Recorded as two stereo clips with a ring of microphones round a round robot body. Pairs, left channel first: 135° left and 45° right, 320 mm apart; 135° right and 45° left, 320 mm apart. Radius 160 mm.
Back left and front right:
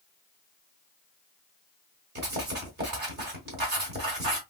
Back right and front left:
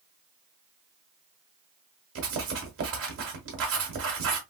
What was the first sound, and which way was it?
Writing, 5° left.